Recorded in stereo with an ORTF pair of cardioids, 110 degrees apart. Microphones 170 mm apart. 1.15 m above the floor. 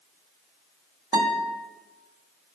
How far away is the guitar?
About 1.5 m.